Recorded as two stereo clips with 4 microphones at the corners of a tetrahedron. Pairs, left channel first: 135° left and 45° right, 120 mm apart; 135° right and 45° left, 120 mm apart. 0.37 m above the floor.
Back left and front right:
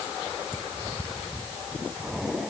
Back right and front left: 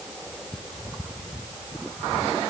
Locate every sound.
Only background noise.